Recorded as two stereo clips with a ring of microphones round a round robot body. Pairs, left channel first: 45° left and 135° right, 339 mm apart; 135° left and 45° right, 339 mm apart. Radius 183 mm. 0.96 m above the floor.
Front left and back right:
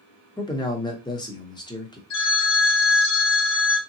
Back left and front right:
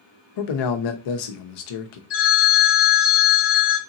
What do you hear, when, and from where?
0.4 s a man speaking: 125° left, 0.8 m
2.1 s a phone ringing: 80° left, 1.2 m